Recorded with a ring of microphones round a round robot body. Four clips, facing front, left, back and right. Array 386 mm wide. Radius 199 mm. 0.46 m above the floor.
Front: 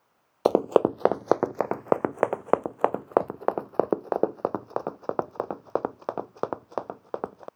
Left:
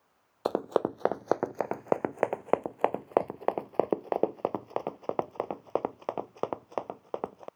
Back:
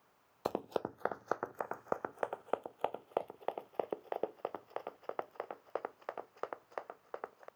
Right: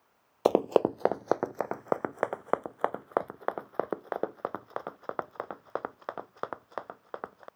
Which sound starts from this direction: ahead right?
Running footsteps, at 0.5 s.